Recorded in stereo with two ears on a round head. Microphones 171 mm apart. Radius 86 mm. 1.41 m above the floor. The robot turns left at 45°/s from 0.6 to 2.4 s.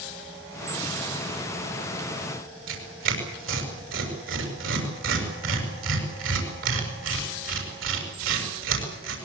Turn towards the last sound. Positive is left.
turn(degrees=-70)  # may be behind; listen again after turning